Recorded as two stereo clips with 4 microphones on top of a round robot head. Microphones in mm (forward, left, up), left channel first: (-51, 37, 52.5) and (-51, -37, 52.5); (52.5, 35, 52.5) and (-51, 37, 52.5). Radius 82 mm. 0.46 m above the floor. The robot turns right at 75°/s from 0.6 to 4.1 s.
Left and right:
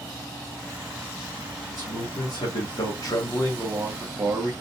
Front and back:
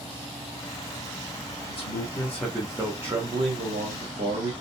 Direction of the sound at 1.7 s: 30° left.